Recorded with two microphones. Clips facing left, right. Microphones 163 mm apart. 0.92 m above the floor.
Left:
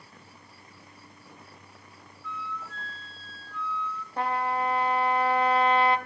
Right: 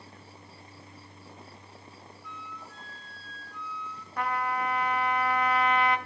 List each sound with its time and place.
2.2 s a flute: 15° right (ahead or behind), 1.7 m
4.2 s a trumpet: 30° left (ahead or behind), 1.0 m